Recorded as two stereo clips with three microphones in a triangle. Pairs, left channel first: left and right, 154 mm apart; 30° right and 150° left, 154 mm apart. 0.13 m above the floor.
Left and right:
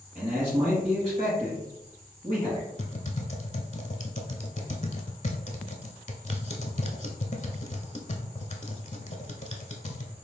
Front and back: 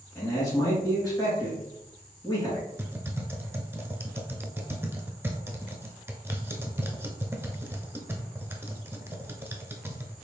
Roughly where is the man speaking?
Right.